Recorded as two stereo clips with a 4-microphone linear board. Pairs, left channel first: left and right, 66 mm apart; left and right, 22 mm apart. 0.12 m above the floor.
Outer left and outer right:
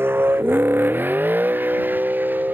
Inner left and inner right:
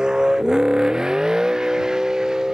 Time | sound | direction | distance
0.0 | a vehicle | 40° right (ahead or behind) | ?